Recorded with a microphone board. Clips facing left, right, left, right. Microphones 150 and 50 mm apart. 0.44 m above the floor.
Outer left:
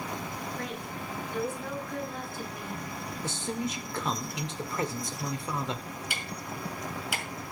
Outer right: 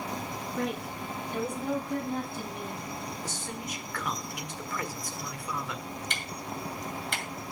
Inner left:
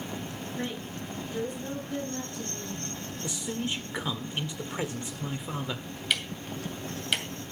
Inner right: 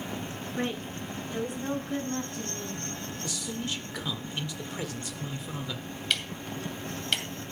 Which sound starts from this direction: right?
A woman speaking, at 0.6 s.